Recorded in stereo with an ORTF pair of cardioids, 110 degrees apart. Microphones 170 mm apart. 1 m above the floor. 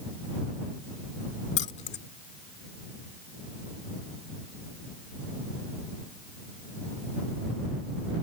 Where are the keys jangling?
45° left.